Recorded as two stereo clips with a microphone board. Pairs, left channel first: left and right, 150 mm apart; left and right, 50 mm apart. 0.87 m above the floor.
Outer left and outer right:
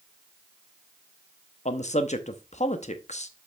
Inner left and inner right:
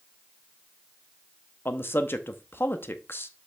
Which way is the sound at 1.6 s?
55° left (ahead or behind).